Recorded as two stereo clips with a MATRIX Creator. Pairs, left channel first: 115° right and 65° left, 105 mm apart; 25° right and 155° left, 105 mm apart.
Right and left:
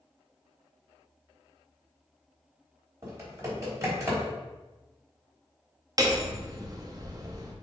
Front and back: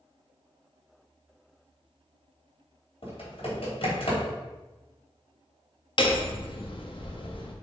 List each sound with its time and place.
3.0 s typing on a keyboard: 5° left, 3 m
6.0 s hammering: 15° left, 1.0 m